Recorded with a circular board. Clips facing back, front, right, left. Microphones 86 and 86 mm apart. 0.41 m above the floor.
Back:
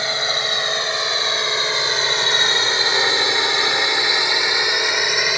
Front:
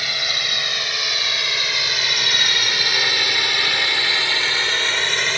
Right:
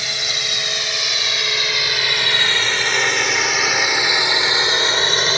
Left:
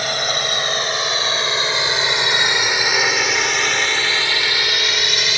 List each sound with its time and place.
0.0 s a drone: 120° left; by 5.4 s 105° right